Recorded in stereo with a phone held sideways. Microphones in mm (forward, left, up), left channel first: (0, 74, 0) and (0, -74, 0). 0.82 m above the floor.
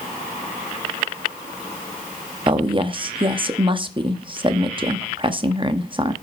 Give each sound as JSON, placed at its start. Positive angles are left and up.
{"t": 2.5, "sound": "a woman speaking", "side_deg": -35, "distance_m": 1.0}